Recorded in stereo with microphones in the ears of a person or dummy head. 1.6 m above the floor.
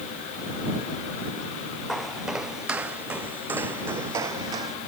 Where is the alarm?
I don't hear an alarm.